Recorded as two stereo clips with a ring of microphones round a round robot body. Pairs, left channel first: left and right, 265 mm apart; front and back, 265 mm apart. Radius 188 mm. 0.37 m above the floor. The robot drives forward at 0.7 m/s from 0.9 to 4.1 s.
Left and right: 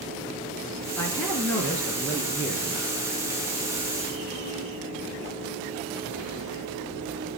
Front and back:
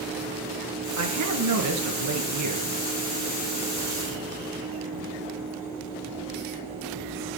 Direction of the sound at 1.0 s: 175° left.